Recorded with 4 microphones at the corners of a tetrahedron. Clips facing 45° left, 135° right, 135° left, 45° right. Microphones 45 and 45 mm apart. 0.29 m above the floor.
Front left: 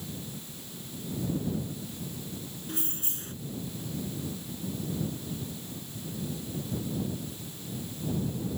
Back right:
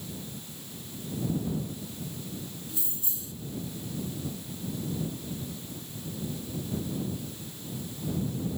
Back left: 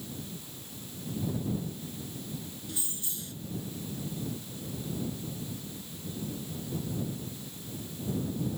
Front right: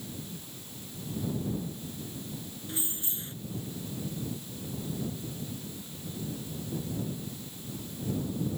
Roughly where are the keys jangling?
Ahead.